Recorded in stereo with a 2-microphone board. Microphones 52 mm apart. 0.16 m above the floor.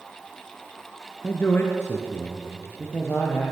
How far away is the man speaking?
About 2.5 m.